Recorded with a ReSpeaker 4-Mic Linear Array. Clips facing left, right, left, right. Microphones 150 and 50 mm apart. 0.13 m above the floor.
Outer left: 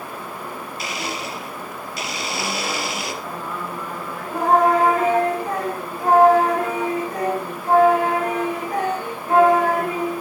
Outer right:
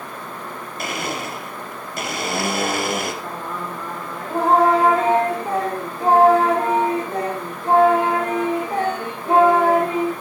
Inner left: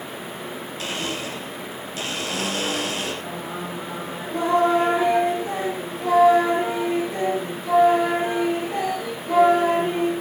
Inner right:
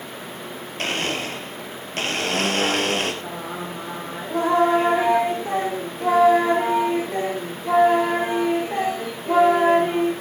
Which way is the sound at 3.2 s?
30° right (ahead or behind).